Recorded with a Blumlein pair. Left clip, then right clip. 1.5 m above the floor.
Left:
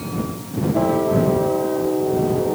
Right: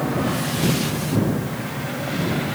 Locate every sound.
Only background noise.